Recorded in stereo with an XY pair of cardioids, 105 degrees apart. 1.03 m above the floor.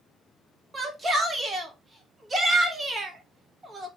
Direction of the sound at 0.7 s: 30° right.